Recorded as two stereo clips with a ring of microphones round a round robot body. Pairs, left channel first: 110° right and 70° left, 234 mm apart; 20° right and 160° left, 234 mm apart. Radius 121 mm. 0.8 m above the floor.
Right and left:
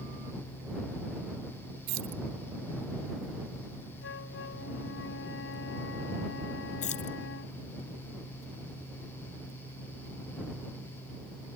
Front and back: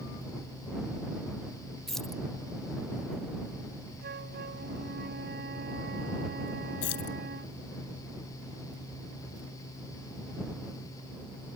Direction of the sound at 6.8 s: 50° right.